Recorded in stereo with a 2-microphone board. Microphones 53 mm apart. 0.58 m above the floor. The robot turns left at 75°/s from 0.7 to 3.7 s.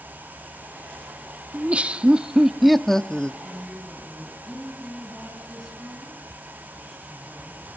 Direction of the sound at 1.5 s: 25° right (ahead or behind).